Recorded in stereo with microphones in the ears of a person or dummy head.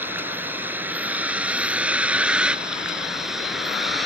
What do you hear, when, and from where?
0.0 s a vehicle: 10° right (ahead or behind); by 4.1 s centre (ahead or behind)